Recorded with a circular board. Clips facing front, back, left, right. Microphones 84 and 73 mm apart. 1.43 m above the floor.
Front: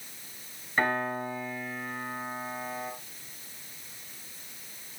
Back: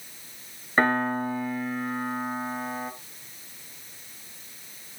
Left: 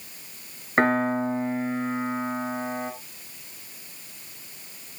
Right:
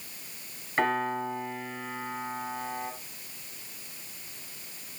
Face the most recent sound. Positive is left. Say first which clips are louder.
# back 5 dB, left 6 dB
turn(degrees=130)